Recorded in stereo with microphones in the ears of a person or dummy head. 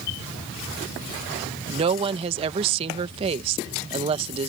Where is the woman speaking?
30° right (ahead or behind).